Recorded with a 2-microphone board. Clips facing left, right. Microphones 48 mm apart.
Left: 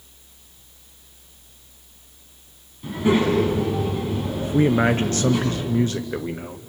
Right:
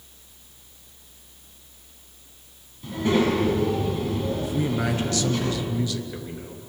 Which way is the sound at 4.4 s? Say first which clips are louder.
Left 7 dB; 40° left (ahead or behind).